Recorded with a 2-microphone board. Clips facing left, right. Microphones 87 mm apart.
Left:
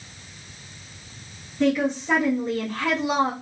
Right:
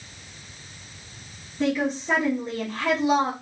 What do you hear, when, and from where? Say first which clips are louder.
1.6 s a woman speaking: left 3 dB; 5° right (ahead or behind), 0.8 m